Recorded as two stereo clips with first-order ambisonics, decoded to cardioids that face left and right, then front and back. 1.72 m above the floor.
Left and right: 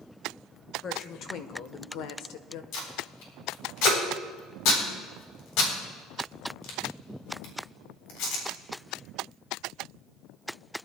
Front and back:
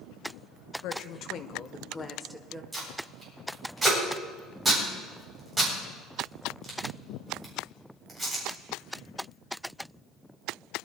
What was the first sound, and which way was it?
A woman speaking, 25° left.